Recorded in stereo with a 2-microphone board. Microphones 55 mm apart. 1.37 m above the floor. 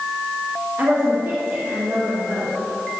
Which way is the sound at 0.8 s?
45° right (ahead or behind).